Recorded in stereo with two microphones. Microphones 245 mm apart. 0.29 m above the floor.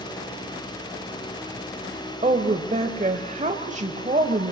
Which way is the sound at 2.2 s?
30° right (ahead or behind).